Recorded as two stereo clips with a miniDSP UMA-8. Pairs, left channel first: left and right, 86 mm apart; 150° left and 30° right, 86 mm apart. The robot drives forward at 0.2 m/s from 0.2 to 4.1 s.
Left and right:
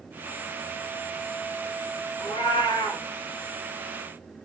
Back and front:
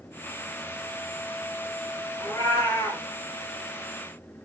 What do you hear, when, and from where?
2.2 s a cat meowing: 85° left, 1.5 m; by 3.0 s 90° left, 1.5 m